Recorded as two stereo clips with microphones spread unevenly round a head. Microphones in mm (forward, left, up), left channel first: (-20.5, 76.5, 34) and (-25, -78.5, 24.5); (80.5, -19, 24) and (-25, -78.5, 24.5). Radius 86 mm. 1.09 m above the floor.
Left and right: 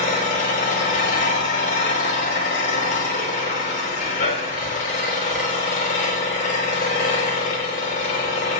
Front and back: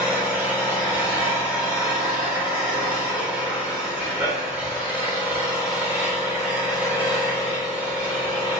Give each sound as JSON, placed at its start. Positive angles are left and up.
{"t": 0.0, "sound": "an engine running", "azimuth_deg": 130, "distance_m": 3.0}